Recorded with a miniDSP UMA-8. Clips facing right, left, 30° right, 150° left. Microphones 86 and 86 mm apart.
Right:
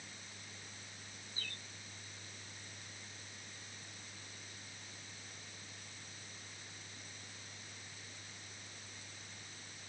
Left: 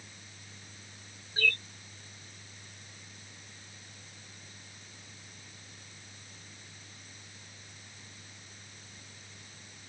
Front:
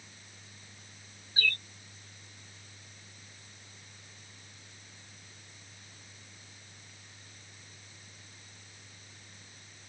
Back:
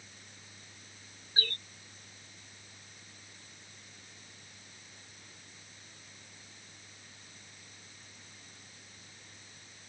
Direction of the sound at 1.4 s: 95° left.